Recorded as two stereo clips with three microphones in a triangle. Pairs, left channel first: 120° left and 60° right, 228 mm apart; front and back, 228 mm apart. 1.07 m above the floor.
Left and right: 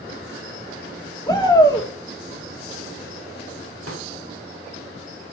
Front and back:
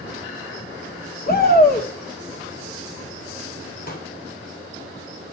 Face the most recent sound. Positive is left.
turn(degrees=-50)